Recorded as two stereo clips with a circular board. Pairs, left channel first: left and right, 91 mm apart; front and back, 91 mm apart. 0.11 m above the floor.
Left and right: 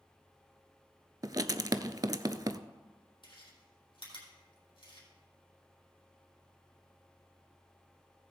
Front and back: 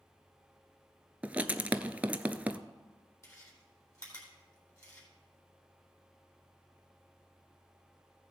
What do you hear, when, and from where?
1.2 s writing: 110° right, 0.5 m
3.2 s chewing: 60° left, 4 m